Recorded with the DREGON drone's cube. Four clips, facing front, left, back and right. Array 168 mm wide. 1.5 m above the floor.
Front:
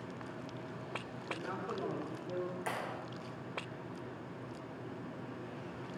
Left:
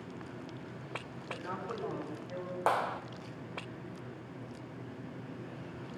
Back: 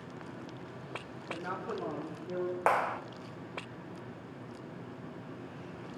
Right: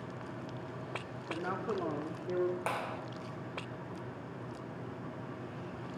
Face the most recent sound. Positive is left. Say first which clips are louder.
# left 6 dB, back 11 dB
turn(degrees=155)